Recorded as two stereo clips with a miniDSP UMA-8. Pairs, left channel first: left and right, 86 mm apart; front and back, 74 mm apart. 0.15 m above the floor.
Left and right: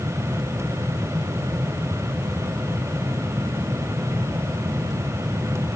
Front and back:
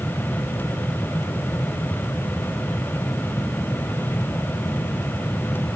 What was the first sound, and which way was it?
Only background noise.